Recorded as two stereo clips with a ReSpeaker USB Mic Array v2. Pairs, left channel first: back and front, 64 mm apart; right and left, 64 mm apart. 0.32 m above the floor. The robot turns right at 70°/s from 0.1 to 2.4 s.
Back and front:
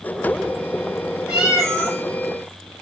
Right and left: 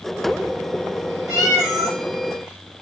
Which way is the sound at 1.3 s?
75° left.